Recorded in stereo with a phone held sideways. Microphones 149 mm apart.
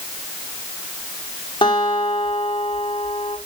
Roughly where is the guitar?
Left.